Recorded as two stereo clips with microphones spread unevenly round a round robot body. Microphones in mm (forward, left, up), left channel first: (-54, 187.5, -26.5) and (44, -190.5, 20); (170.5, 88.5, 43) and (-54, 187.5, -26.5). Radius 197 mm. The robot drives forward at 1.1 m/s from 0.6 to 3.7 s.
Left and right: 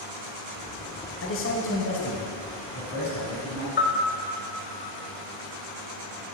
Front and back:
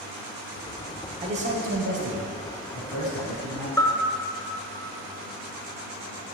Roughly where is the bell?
Ahead left.